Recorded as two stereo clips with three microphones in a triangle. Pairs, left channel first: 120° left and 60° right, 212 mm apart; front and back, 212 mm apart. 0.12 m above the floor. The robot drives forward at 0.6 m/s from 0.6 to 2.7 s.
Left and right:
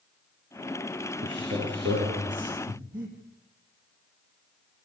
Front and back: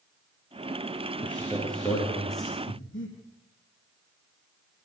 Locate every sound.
1.2 s a man speaking: 80° right, 7 m; by 2.6 s 90° right, 7 m
2.7 s breathing: 10° right, 5 m